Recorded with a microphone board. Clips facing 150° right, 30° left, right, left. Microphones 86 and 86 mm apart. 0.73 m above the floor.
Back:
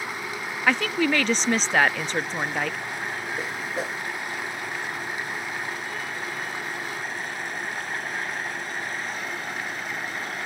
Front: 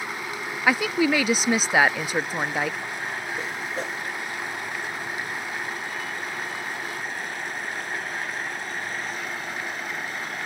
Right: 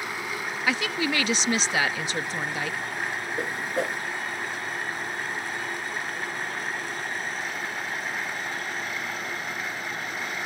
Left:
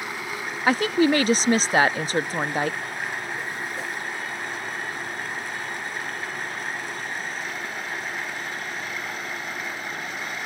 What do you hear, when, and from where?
0.7 s a woman speaking: 105° left
3.4 s a whoosh: 65° right